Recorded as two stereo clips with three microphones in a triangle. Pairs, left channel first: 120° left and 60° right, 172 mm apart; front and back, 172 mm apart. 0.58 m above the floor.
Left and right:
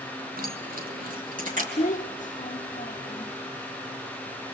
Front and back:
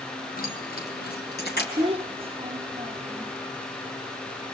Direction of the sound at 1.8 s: 135° left.